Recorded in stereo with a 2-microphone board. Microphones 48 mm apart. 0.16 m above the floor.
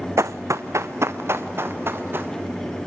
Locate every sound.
0.2 s running footsteps: 70° right (ahead or behind), 0.6 m; by 2.3 s 45° right (ahead or behind), 2.5 m